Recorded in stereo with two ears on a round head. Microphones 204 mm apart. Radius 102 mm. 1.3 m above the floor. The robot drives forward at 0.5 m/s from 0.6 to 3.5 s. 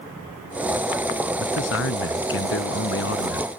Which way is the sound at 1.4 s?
60° left (ahead or behind).